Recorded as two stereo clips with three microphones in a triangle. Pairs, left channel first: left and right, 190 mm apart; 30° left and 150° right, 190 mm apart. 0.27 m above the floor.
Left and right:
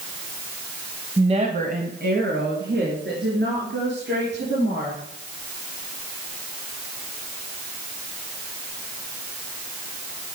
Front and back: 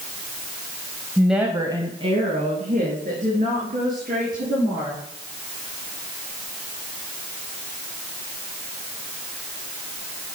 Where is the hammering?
I don't hear hammering.